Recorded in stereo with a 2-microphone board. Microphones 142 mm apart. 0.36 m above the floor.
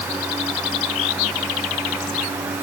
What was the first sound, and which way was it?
Only background noise.